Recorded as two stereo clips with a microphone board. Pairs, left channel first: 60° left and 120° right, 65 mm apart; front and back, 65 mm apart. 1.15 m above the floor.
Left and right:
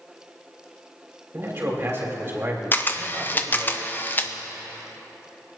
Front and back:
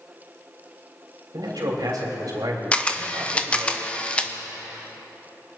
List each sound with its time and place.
1.3 s a man speaking: 170° right, 3.5 m
2.7 s a camera shutter: 55° left, 0.7 m